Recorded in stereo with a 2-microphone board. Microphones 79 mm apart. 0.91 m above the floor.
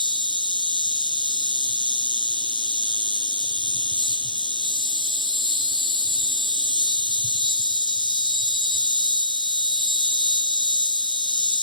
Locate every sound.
0.0 s an insect: 90° right, 1.0 m